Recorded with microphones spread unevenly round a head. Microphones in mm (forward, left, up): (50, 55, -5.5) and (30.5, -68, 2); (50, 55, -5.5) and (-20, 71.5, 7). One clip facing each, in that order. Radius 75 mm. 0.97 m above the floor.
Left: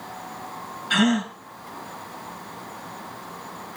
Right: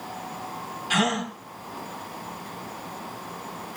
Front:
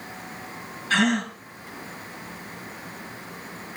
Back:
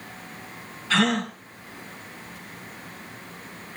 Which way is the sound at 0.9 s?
140° right.